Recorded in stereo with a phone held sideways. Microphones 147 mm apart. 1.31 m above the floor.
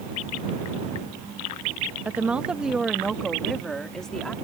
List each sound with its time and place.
2.0 s a woman speaking: 10° right (ahead or behind); by 4.3 s 5° left (ahead or behind)